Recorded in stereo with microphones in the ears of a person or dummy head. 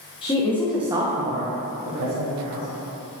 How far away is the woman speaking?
About 0.9 m.